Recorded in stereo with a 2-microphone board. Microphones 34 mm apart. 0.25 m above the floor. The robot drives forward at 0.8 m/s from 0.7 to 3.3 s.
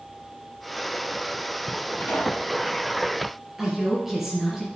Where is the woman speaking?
10° right (ahead or behind), 5 m.